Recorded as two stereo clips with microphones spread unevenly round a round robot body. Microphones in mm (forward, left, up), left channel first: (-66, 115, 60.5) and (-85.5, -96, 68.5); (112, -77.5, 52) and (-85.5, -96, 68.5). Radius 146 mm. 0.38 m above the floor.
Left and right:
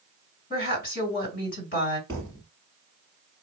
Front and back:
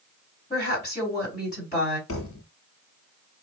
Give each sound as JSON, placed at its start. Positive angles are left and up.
{"t": 0.5, "sound": "a woman speaking", "azimuth_deg": 50, "distance_m": 2.0}
{"t": 2.1, "sound": "a thud", "azimuth_deg": 5, "distance_m": 1.0}